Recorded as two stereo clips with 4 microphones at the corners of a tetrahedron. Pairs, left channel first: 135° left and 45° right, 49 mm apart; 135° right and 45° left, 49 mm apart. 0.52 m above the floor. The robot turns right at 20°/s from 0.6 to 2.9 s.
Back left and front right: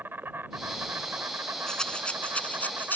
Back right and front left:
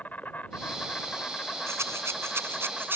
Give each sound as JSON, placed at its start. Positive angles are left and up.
{"t": 0.0, "sound": "an insect", "azimuth_deg": -85}
{"t": 1.7, "sound": "a rattle", "azimuth_deg": 60}